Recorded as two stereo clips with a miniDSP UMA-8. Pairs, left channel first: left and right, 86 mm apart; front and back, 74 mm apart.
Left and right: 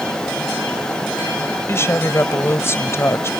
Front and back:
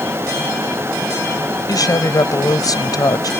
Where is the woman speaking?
30° left.